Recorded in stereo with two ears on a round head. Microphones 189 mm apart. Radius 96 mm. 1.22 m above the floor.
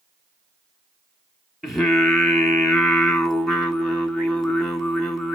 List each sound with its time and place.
1.6 s singing: centre (ahead or behind), 1.5 m